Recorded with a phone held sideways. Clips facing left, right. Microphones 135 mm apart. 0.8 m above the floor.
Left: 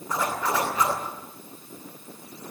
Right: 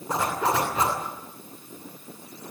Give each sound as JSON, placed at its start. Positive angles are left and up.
{"t": 0.1, "sound": "a zipper", "side_deg": -25, "distance_m": 10.0}